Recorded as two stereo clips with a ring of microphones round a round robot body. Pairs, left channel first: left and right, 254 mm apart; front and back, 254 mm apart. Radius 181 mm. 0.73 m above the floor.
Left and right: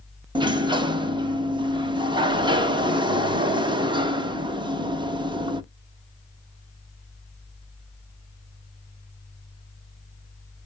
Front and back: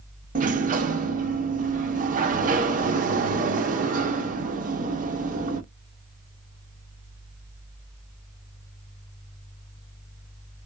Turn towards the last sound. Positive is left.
turn(degrees=-150)